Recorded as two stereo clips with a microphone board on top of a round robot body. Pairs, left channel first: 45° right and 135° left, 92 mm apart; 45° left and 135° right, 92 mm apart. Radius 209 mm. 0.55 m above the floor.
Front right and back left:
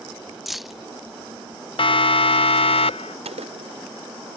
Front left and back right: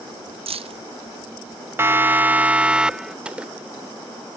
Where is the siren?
70° right; by 3.1 s 50° right.